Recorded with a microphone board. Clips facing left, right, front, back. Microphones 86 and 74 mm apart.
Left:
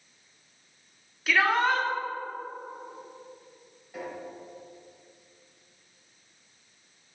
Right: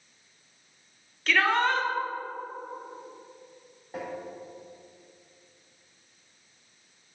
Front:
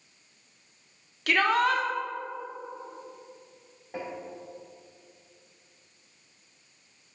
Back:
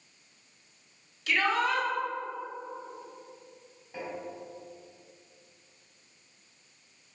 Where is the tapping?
35° right, 2 m.